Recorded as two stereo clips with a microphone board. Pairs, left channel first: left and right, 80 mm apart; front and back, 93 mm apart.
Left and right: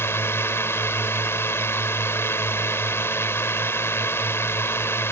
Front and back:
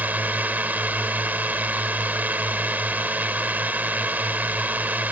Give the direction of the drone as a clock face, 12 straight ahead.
8 o'clock.